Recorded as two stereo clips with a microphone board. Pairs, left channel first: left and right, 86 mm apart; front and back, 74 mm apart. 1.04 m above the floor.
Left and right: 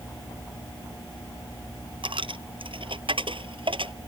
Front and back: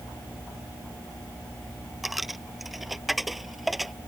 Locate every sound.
2.0 s a dropped coin: 90° right